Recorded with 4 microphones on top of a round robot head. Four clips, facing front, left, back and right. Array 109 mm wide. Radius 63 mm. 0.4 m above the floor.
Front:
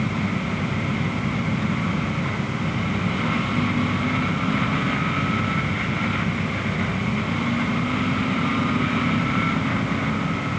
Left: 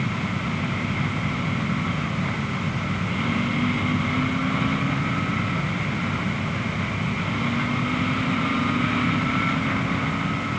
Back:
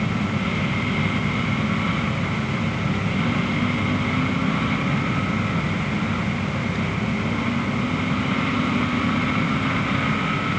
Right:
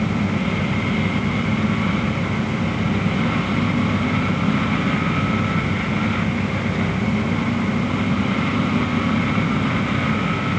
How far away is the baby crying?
No baby crying in this recording.